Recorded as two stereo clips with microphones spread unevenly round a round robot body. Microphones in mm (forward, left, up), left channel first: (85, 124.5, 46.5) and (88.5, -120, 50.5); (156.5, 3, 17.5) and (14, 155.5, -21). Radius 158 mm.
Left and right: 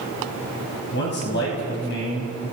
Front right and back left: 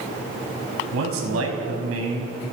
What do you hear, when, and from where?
0.9 s a man speaking: 145° left, 5.5 m